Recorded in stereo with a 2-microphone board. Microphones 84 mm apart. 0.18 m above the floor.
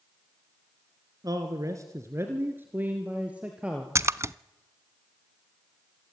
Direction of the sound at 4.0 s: 35° right (ahead or behind).